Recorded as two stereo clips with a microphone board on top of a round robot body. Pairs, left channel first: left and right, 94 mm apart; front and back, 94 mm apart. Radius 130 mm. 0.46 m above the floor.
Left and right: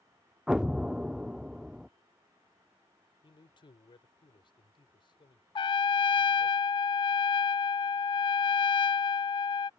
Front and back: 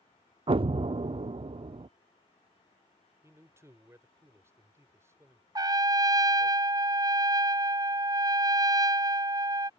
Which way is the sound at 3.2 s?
120° left.